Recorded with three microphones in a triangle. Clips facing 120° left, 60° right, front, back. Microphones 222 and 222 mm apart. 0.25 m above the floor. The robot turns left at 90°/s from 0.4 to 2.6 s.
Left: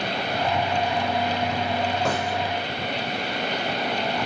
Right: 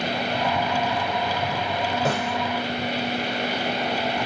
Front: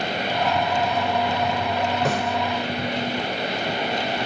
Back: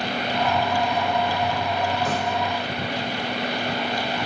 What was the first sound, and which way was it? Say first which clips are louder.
A snare drum: right 1 dB, front 2 dB; 25° left.